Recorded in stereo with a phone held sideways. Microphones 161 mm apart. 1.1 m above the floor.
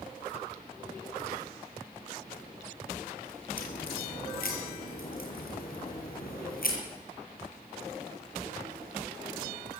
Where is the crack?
65° left (ahead or behind), 7 m.